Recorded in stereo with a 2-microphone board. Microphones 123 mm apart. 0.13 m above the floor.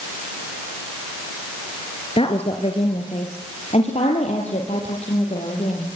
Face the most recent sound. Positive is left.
turn(degrees=70)  # may be behind; listen again after turning